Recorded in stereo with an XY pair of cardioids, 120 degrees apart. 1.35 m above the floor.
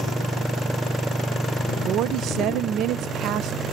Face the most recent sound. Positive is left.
turn(degrees=-70)